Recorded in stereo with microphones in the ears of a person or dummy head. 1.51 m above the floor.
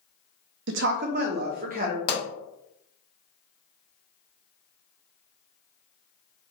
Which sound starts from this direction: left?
A pop, at 2.1 s.